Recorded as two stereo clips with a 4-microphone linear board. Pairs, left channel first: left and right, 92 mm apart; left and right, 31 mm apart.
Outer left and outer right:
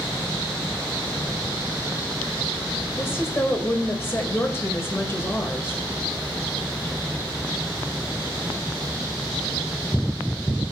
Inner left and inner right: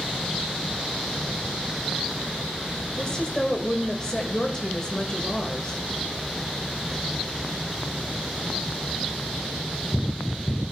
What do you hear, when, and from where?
3.0 s a woman speaking: 30° left (ahead or behind), 1.9 m